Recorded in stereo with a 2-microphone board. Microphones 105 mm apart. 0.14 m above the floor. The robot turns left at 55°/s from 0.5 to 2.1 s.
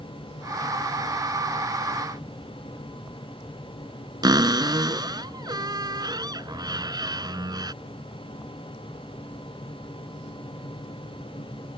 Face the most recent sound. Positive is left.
turn(degrees=-40)  # may be behind; listen again after turning